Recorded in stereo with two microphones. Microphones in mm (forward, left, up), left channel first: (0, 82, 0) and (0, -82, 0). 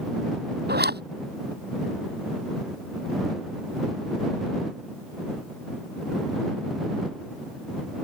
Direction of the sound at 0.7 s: 80° right.